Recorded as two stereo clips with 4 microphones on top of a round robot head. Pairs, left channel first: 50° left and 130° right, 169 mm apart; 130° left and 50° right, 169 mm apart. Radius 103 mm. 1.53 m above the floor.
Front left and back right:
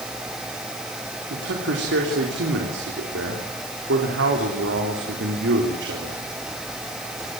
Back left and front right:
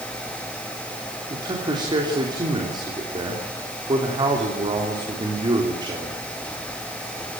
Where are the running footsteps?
I don't hear running footsteps.